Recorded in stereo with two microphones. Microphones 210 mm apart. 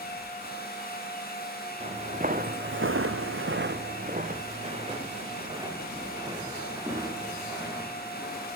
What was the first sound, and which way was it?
Footsteps, 25° right (ahead or behind).